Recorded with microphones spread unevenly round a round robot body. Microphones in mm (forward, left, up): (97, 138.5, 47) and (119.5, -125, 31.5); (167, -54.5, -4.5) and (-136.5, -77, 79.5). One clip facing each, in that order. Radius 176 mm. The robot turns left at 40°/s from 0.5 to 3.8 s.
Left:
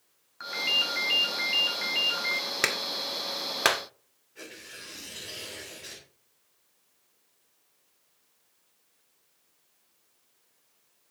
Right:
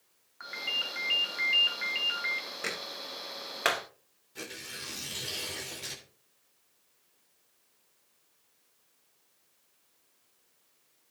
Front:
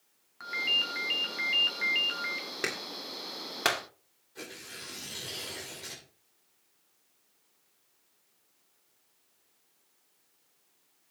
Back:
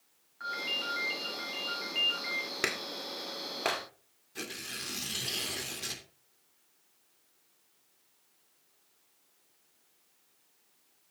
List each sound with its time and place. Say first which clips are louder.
0.4 s a ringtone: left 7 dB, back 1 dB; 50° left, 3 m; by 2.5 s 30° right, 3 m
2.6 s a clap: left 4 dB, even; 100° left, 1.5 m; by 3.8 s 55° left, 1.5 m
4.3 s tearing paper: right 2 dB, back 2 dB; 135° right, 3 m